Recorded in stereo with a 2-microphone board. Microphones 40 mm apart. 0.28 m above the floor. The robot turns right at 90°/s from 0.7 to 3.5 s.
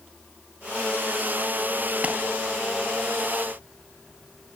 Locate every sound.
2.0 s a clap: 35° right (ahead or behind), 3.5 m; by 2.2 s 25° right (ahead or behind), 3.5 m